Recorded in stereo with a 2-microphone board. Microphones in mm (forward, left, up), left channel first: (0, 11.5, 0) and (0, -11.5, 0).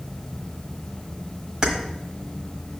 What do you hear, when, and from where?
1.6 s keys jangling: 40° right (ahead or behind), 1.3 m